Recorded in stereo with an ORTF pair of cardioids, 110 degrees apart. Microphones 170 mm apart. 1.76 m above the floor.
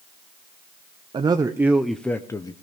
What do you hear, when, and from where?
1.1 s a man speaking: 30° right, 1.0 m; by 2.5 s 25° left, 1.1 m